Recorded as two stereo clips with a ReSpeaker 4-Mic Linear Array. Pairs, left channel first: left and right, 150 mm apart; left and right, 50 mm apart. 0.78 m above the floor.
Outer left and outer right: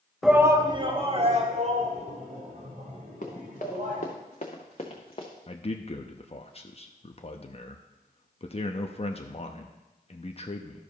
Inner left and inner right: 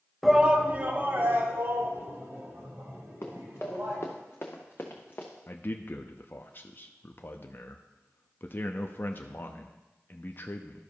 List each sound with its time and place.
0.2 s a shout: centre (ahead or behind), 0.7 m; by 4.0 s 55° right (ahead or behind), 4.5 m
3.2 s running footsteps: 60° left (ahead or behind), 3 m; by 5.3 s 35° left (ahead or behind), 2 m
5.5 s a man speaking: 40° left (ahead or behind), 0.7 m